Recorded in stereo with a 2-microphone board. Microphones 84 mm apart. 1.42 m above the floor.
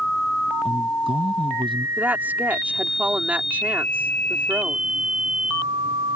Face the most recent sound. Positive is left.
turn(degrees=-20)  # may be behind; listen again after turning